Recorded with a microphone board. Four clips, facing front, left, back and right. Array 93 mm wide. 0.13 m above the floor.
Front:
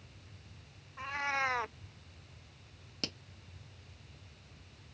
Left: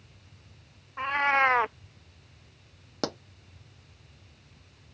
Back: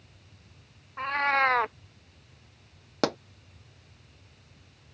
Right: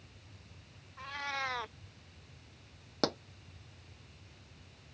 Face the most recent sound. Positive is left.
turn(degrees=175)